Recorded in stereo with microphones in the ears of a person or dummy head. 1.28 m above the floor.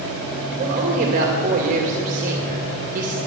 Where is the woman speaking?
40° right (ahead or behind), 2 m.